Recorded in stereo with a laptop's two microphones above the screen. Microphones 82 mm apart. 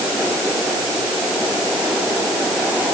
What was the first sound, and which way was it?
Only background noise.